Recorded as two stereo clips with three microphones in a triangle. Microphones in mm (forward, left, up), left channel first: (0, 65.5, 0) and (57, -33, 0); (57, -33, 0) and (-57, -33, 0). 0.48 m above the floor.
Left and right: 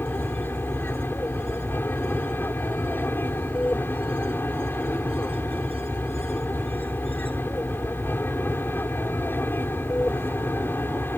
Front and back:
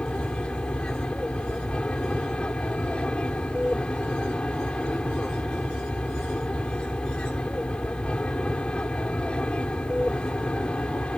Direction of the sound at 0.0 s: 70° left.